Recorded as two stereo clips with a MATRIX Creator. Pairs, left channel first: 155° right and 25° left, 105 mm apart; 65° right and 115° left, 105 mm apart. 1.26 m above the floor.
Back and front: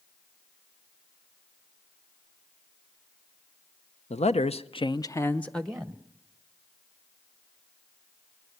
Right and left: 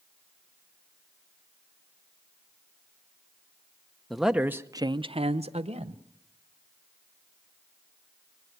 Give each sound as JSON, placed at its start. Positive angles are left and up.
{"t": 4.1, "sound": "a man speaking", "azimuth_deg": -155, "distance_m": 0.8}